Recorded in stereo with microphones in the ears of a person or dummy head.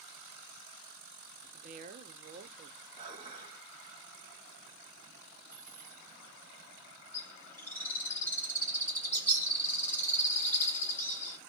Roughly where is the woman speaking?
Right.